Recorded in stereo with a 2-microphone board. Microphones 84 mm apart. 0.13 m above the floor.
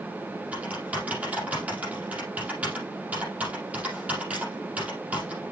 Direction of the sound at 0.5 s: 15° right (ahead or behind).